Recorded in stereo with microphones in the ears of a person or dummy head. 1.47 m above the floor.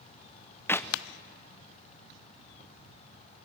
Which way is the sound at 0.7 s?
10° left (ahead or behind).